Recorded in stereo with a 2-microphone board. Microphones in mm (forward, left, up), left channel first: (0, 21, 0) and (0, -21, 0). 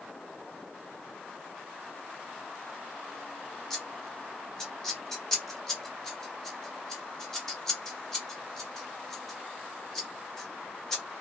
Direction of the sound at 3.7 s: 10° left (ahead or behind).